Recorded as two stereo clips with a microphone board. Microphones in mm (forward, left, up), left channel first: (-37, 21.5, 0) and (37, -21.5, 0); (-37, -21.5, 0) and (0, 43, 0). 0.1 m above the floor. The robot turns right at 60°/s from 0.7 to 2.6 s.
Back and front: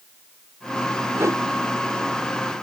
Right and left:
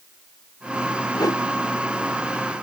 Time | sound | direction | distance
1.1 | a whoosh | 90° right | ?